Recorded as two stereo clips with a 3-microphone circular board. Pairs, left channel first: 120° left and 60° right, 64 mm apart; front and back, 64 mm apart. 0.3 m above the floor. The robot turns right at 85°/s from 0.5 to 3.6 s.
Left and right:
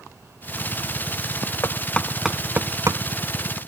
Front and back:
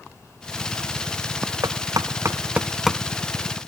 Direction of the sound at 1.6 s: 165° left.